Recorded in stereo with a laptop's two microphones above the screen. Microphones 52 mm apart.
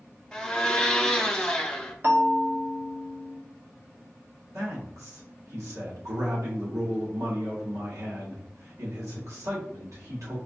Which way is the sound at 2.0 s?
45° right (ahead or behind).